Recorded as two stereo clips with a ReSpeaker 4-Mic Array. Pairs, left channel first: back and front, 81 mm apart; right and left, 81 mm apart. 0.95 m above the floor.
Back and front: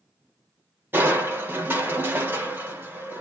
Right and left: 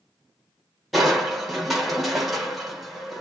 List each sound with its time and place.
0.9 s crushing: 5° left, 0.7 m